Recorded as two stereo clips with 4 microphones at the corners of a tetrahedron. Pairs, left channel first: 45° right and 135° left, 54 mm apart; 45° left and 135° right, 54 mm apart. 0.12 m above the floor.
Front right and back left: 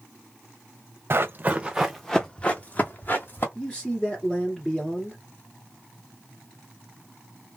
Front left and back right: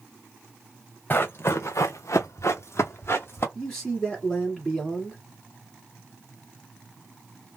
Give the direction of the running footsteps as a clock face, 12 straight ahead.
9 o'clock.